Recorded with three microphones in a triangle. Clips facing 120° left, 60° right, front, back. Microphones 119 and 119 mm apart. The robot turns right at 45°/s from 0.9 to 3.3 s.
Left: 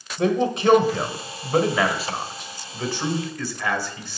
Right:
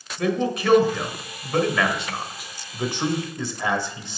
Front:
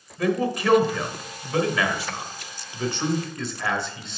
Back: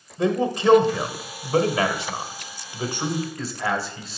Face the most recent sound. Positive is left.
turn(degrees=-100)